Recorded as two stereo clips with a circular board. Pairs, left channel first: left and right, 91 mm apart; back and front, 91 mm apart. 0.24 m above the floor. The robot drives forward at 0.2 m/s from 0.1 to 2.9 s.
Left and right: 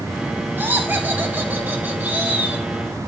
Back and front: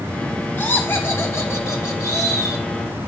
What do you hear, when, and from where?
0.6 s laughter: 140° right, 1.3 m; by 2.6 s 155° right, 1.5 m